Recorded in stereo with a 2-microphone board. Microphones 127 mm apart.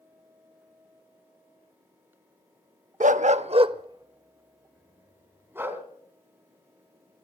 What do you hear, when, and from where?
3.0 s a dog barking: 75° right (ahead or behind), 0.5 m; by 5.8 s 15° right (ahead or behind), 2.5 m